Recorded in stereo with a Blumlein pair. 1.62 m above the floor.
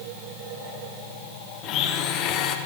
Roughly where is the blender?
Ahead left.